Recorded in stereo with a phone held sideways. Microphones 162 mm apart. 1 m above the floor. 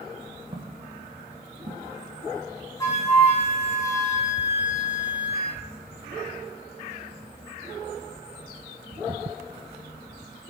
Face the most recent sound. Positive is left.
turn(degrees=20)  # may be behind; listen again after turning